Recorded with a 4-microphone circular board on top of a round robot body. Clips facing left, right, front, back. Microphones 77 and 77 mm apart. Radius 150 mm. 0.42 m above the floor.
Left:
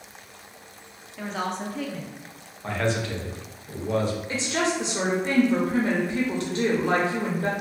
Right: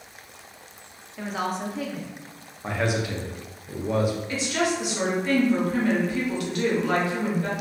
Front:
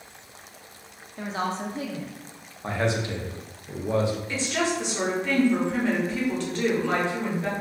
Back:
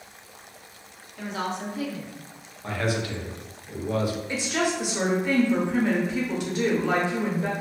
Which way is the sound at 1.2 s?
10° right.